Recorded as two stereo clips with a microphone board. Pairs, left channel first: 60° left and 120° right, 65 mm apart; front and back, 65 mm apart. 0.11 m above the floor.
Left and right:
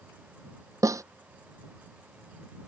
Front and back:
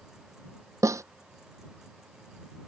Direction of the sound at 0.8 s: 150° right.